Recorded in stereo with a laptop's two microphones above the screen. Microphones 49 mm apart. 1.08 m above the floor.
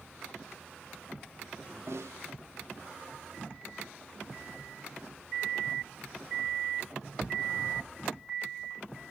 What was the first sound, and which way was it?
A snare drum, 70° right (ahead or behind).